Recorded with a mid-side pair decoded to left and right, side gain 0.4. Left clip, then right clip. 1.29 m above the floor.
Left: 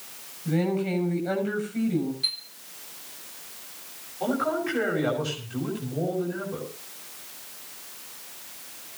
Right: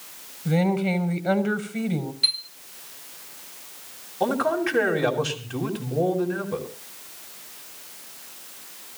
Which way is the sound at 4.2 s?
70° right.